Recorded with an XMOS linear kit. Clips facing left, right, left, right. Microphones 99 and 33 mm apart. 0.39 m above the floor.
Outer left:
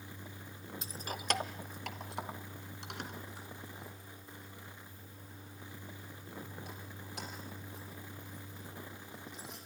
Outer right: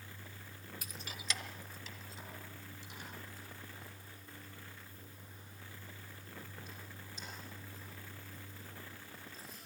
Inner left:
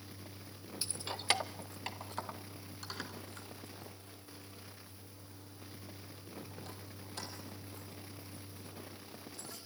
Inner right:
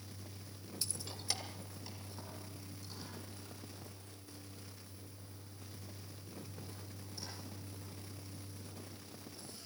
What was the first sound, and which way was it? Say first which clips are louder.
Keys jangling: outer left 8 dB, inner left 8 dB; 25° left (ahead or behind).